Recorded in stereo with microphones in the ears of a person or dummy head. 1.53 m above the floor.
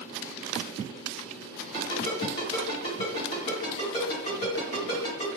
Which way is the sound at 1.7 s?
30° left (ahead or behind).